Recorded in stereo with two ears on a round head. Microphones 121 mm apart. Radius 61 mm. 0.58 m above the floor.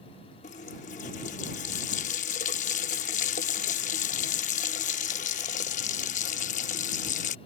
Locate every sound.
0.4 s a running tap: 60° left (ahead or behind)